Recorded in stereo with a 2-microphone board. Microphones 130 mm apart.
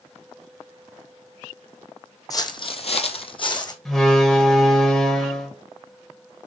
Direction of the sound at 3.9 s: 5° left (ahead or behind).